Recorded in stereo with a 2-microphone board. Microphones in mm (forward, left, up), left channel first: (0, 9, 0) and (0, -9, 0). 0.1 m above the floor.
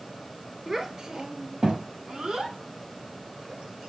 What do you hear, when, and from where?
0.7 s a child speaking: 20° right (ahead or behind), 1.0 m; by 3.9 s 65° right (ahead or behind), 4 m